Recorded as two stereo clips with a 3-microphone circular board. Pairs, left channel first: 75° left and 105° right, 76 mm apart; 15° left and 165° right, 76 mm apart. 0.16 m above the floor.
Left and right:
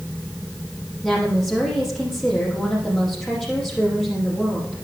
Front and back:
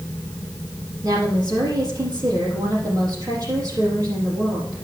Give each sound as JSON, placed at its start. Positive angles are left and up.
{"t": 1.0, "sound": "a woman speaking", "azimuth_deg": 160, "distance_m": 5.5}